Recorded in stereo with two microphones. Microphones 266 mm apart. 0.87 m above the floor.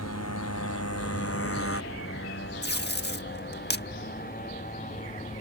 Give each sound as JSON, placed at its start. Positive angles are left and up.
{"t": 0.0, "sound": "a motorcycle", "side_deg": 75}
{"t": 2.6, "sound": "tape being pulled", "side_deg": 40}